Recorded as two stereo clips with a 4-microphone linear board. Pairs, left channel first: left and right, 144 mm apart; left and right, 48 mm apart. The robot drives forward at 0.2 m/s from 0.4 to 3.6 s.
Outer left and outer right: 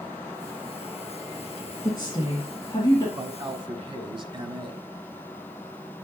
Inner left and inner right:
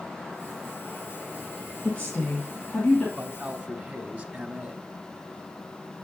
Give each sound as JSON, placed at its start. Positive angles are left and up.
{"t": 1.8, "sound": "a woman speaking", "side_deg": 30, "distance_m": 1.8}
{"t": 3.1, "sound": "a man speaking", "side_deg": -35, "distance_m": 1.2}